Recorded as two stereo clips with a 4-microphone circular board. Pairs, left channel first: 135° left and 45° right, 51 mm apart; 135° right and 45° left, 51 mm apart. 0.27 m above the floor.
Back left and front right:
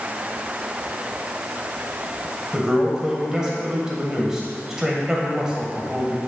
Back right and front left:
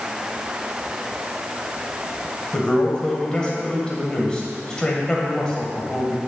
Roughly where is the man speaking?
Right.